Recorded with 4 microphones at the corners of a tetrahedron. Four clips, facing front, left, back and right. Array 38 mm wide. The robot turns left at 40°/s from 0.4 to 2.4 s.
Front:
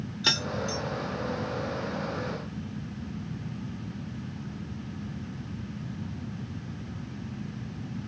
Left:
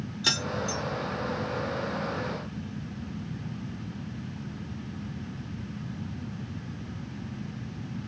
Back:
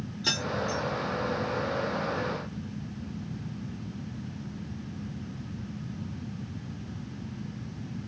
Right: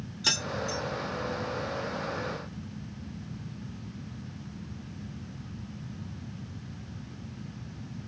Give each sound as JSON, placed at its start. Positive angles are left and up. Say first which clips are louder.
{"t": 0.2, "sound": "keys jangling", "louder": "left 1 dB, front 2 dB", "azimuth_deg": 5, "distance_m": 0.6}